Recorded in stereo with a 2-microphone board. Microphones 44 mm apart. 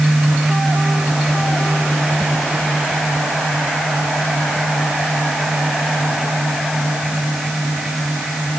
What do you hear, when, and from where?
Only background noise.